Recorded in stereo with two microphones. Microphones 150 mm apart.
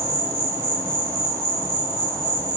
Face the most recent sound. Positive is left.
turn(degrees=-15)  # may be behind; listen again after turning